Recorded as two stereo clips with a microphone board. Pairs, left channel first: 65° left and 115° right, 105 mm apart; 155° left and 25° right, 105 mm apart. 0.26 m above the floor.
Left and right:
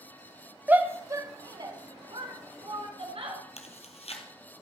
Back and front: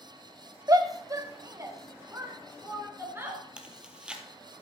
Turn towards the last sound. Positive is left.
turn(degrees=60)